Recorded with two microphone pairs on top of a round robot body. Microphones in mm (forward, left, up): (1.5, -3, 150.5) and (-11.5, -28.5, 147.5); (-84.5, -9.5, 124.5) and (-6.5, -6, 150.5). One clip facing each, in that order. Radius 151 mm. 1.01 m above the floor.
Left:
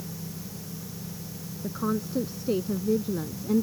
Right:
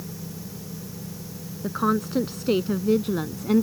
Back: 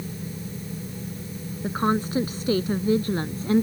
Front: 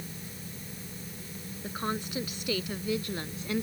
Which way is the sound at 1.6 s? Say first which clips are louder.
Right 6 dB, back 10 dB; 125° right.